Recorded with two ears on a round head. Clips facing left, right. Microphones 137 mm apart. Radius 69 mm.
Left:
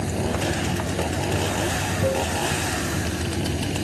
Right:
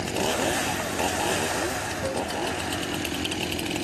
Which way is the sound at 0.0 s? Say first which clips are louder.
Left 1 dB; 40° left (ahead or behind).